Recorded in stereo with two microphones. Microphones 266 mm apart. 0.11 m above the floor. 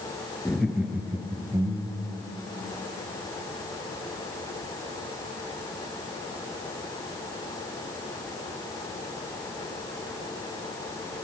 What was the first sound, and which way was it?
Laughter, 5° left (ahead or behind).